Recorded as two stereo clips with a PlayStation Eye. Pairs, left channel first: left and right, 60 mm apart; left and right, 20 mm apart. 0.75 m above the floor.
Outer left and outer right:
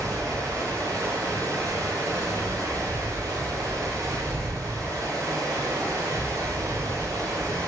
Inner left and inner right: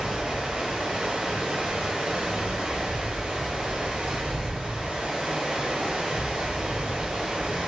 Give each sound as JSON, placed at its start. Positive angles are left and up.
{"t": 0.0, "sound": "running water", "side_deg": -85, "distance_m": 1.3}